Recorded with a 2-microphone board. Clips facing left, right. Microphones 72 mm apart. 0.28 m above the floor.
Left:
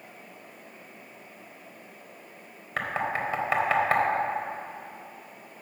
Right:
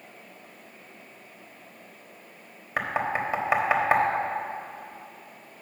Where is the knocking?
15° right (ahead or behind), 1.1 m.